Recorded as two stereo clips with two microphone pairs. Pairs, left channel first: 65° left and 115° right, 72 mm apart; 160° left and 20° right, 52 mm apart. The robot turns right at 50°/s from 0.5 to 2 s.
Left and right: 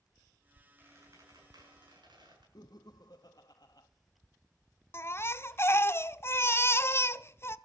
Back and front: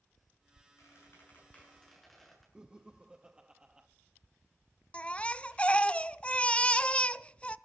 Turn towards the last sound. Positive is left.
turn(degrees=100)